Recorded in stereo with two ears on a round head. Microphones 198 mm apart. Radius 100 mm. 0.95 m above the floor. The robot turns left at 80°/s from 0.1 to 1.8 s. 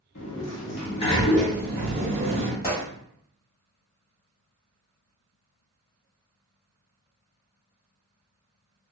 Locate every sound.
0.1 s a sliding door: 100° left, 0.7 m; by 2.5 s 30° right, 0.7 m
2.6 s a gunshot: 25° left (ahead or behind), 1.4 m